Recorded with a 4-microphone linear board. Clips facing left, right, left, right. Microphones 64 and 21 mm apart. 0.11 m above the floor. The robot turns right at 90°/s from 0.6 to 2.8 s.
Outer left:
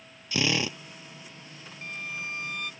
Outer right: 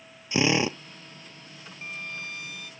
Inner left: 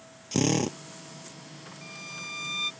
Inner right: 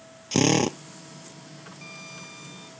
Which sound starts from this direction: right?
A drill, at 0.3 s.